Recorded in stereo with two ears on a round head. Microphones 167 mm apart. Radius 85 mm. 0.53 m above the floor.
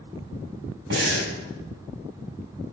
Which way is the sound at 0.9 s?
70° right (ahead or behind).